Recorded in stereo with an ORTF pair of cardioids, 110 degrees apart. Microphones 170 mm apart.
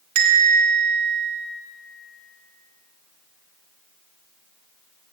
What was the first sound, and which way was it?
A bell, 50° right.